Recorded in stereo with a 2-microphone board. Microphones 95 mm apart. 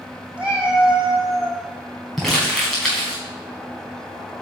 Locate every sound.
0.4 s a cat meowing: 15° right (ahead or behind), 2.5 m; by 1.6 s 5° right (ahead or behind), 3.5 m
2.2 s crumpling: centre (ahead or behind), 4.5 m